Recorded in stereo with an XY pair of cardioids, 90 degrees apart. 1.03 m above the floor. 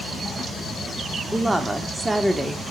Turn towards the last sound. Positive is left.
turn(degrees=-10)